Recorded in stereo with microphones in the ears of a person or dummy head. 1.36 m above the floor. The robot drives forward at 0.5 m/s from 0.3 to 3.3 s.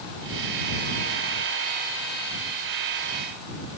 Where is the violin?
No violin in this recording.